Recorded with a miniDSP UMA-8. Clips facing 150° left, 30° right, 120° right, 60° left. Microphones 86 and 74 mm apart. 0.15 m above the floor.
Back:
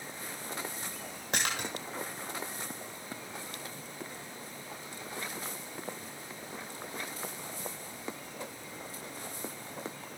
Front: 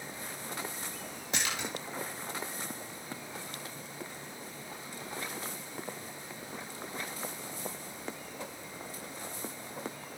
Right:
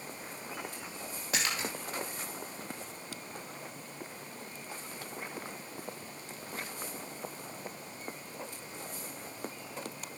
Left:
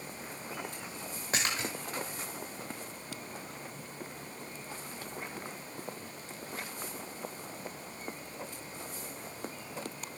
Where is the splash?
120° left, 7.5 m.